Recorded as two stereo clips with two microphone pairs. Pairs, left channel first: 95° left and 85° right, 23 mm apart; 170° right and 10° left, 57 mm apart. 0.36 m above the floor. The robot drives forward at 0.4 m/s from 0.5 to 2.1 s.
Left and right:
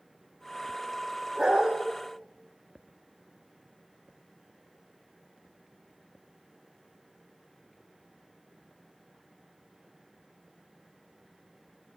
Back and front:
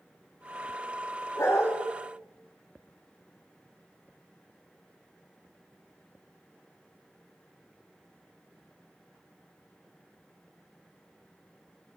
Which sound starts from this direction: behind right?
A dog barking, at 1.4 s.